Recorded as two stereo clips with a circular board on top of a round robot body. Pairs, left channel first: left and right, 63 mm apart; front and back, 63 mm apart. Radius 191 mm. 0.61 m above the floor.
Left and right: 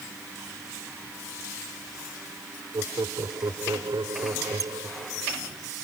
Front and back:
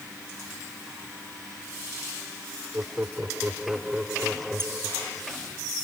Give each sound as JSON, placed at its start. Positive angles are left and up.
{"t": 2.7, "sound": "laughter", "azimuth_deg": -115}
{"t": 4.6, "sound": "a squeak", "azimuth_deg": -130}